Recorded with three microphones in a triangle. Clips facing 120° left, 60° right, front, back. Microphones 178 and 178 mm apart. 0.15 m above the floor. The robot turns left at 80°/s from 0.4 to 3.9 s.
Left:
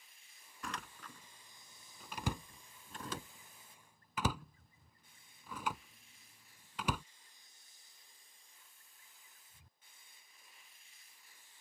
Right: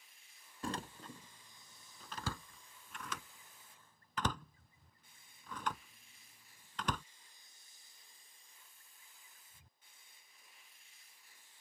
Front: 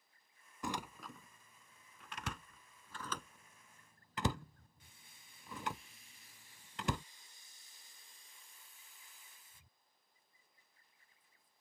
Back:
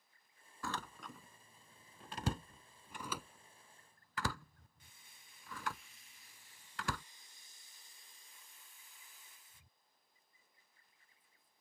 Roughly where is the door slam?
Ahead right.